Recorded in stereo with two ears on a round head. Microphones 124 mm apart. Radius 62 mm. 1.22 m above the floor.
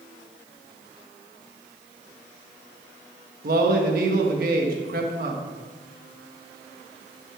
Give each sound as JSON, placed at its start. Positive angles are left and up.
{"t": 3.4, "sound": "a man speaking", "side_deg": -75, "distance_m": 1.5}